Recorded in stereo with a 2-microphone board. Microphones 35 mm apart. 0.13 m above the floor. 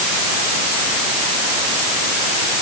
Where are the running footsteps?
No running footsteps in this recording.